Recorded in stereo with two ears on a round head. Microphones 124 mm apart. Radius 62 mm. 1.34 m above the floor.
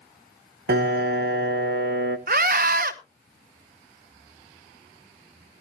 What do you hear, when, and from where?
0.7 s a piano: 75° right (ahead or behind), 0.9 m
2.3 s a scream: 65° right (ahead or behind), 1.0 m